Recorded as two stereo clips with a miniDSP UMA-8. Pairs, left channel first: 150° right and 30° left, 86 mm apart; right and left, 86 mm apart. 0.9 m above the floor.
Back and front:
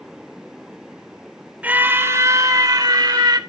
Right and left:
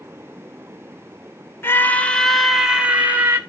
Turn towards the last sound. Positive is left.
turn(degrees=30)